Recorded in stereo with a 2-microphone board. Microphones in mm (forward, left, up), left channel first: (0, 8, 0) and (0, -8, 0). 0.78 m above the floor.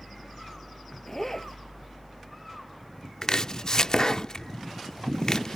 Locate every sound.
1.1 s a zipper: 25° left (ahead or behind)
3.2 s chopping: 40° left (ahead or behind)